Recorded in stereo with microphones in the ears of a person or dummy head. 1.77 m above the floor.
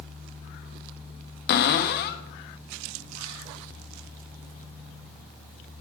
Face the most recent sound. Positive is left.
turn(degrees=55)  # may be behind; listen again after turning